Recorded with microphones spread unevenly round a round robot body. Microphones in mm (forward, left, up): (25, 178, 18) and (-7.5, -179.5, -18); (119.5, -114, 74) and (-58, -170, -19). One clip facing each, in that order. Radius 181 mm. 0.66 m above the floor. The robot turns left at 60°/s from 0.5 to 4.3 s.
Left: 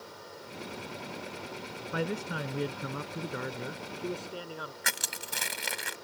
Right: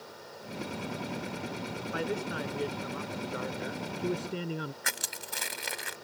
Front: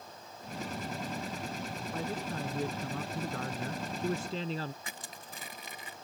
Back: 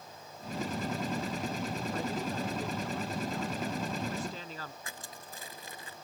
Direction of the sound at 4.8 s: 75° left.